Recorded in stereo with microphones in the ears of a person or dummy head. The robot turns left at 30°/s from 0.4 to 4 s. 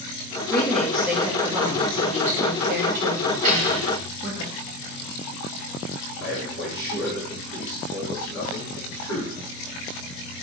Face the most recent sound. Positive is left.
turn(degrees=-60)  # may be behind; listen again after turning